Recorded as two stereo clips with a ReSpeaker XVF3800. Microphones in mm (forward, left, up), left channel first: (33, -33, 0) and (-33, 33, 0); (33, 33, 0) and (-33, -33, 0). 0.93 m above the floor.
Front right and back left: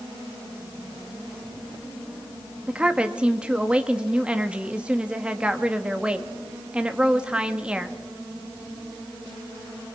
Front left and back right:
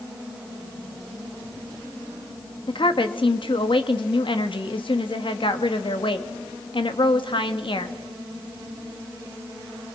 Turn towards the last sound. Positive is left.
turn(degrees=60)